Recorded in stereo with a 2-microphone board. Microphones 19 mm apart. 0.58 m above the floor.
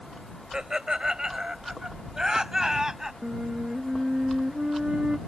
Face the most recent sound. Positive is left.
turn(degrees=-50)  # may be behind; listen again after turning